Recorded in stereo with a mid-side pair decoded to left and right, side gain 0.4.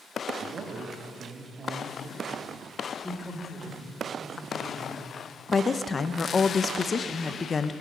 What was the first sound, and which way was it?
A man speaking, 65° right.